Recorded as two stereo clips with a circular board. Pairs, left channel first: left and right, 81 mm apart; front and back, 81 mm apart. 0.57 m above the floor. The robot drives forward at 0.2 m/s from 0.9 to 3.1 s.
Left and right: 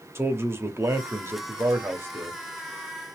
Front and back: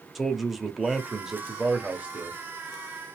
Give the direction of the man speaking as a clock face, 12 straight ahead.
3 o'clock.